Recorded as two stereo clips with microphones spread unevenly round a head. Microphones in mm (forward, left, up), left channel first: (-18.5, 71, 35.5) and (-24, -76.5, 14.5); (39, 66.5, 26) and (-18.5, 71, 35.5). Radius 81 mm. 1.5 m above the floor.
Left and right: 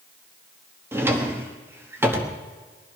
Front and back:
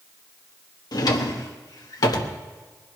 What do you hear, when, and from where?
0.9 s a drawer: 10° right, 1.2 m